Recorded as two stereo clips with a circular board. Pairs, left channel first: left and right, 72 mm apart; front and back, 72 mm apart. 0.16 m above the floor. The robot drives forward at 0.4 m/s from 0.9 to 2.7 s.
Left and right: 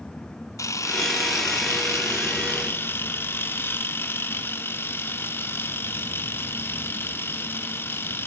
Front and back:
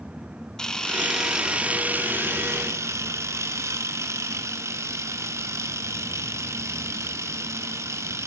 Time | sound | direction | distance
0.6 | a camera shutter | 80° left | 0.7 m